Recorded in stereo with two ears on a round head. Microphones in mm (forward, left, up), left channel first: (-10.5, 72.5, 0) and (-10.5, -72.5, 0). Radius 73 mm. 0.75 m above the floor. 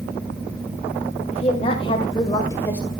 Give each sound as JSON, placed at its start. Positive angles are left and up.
{"t": 1.3, "sound": "a woman speaking", "side_deg": 40, "distance_m": 3.5}